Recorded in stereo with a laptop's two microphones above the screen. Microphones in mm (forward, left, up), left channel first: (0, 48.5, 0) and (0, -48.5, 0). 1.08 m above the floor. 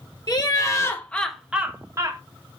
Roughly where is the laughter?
Left.